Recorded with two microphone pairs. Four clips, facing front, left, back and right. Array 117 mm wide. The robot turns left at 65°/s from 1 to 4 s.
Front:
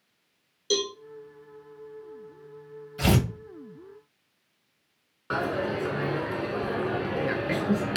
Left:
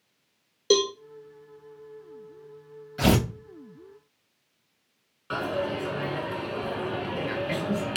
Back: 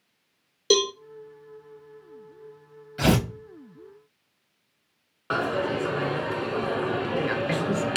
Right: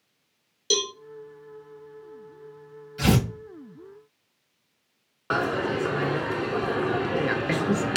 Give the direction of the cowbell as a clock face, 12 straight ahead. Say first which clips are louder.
Left 7 dB, back 6 dB; 7 o'clock.